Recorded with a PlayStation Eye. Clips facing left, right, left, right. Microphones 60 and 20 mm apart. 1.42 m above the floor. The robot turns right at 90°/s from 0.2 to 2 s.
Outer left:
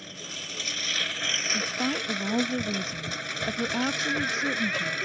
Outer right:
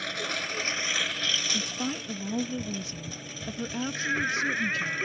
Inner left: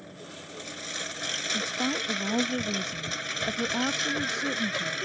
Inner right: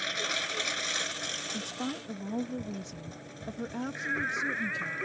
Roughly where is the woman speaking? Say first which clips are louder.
Outer left 4 dB, inner left 7 dB; ahead.